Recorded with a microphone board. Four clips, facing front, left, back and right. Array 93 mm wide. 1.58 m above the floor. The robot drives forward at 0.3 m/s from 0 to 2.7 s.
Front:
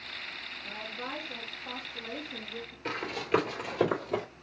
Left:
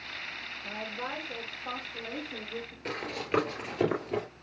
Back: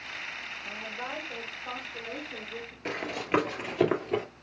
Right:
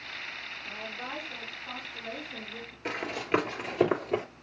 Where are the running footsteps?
130° right, 1.6 m; by 4.2 s 155° right, 1.9 m.